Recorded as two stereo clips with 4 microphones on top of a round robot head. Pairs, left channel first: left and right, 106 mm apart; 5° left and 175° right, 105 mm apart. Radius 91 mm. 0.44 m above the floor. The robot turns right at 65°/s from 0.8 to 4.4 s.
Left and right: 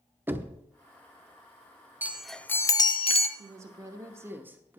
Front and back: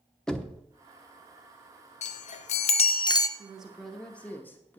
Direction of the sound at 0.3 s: 65° right.